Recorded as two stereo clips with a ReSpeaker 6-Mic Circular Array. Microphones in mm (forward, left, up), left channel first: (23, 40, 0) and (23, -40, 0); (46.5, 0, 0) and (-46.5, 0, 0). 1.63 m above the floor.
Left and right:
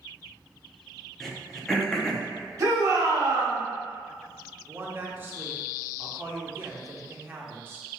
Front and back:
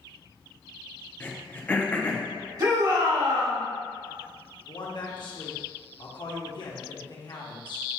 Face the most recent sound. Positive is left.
turn(degrees=-30)